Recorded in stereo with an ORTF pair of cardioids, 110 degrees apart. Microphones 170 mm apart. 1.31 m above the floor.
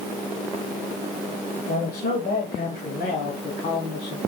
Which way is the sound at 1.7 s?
65° left.